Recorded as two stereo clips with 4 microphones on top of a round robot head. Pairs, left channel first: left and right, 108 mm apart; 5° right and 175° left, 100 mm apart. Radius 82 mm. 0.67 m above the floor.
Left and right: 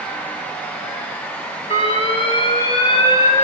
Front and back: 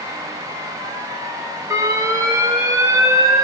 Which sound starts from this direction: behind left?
An alarm, at 1.7 s.